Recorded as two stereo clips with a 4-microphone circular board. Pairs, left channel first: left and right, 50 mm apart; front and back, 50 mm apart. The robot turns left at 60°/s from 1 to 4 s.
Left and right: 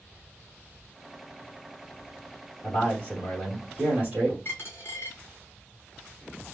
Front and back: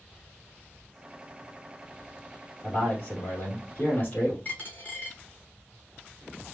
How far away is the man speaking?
About 2 m.